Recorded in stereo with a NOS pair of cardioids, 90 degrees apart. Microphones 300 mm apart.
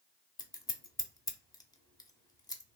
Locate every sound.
0.4 s scissors: 10° left, 0.7 m